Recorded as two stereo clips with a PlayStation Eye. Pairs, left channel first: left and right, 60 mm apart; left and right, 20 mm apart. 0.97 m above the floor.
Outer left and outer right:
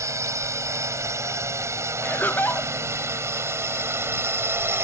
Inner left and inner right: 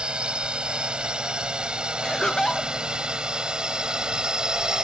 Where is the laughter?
35° left (ahead or behind).